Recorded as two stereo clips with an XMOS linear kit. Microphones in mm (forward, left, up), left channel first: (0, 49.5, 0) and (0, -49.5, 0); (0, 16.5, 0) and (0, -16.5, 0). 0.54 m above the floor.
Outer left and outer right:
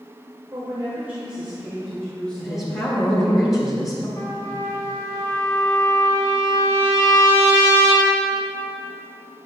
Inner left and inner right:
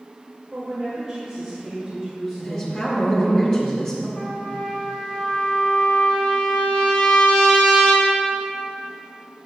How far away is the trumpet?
About 2.5 m.